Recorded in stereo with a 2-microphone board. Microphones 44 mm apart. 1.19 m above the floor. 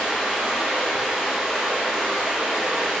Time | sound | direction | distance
0.0 | running water | 10° right (ahead or behind) | 0.9 m